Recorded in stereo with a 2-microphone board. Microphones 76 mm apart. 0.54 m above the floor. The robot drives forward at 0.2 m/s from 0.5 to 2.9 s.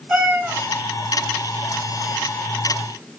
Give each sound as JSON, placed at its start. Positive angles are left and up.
{"t": 0.1, "sound": "a cat meowing", "side_deg": -15, "distance_m": 1.3}